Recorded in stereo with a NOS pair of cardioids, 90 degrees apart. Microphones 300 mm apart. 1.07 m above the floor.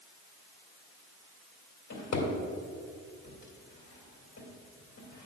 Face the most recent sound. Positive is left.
turn(degrees=65)